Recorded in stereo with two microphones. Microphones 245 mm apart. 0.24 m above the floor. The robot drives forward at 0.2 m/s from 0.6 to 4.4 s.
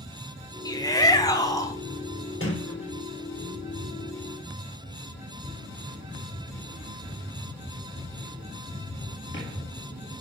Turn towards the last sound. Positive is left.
turn(degrees=50)  # may be behind; listen again after turning